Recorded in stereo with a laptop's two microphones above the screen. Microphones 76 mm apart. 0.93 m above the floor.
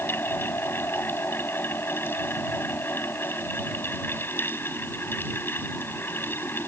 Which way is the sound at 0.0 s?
30° left (ahead or behind).